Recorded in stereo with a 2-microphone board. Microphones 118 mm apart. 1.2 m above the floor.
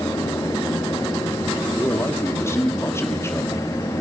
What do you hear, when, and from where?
1.8 s a man speaking: 25° left (ahead or behind), 3 m